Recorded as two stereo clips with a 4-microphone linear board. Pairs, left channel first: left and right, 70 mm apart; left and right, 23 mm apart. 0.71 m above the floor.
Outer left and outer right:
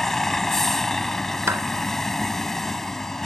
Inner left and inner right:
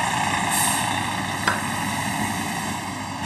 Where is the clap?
40° right (ahead or behind).